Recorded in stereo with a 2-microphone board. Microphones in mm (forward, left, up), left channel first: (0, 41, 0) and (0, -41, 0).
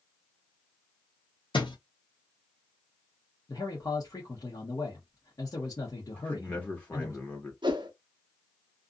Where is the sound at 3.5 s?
45° left (ahead or behind), 1.0 m.